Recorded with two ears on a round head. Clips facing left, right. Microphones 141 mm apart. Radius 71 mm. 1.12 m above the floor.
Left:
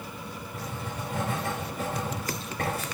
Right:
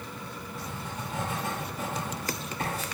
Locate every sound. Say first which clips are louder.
0.5 s writing: left 2 dB; 50° left (ahead or behind), 5.5 m